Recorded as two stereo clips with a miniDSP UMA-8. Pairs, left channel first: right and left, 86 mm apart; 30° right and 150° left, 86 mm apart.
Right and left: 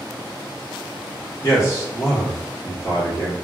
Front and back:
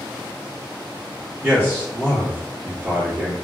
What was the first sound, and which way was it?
A man speaking, 140° right.